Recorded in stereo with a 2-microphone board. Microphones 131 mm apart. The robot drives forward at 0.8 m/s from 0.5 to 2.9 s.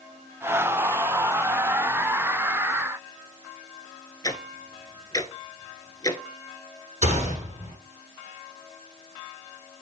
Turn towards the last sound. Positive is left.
turn(degrees=-65)  # may be behind; listen again after turning